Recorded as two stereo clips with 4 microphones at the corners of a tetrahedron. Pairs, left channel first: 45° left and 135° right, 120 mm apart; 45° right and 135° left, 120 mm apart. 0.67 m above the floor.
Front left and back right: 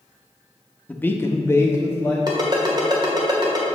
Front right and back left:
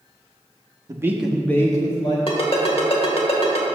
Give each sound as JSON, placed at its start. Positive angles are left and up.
{"t": 0.9, "sound": "a man speaking", "azimuth_deg": 110, "distance_m": 0.7}
{"t": 2.3, "sound": "a ringtone", "azimuth_deg": -80, "distance_m": 1.5}